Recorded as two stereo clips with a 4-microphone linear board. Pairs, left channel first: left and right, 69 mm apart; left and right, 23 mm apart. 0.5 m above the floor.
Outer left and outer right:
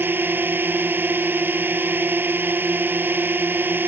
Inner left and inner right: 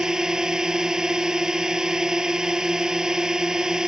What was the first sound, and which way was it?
A drone, 30° right (ahead or behind).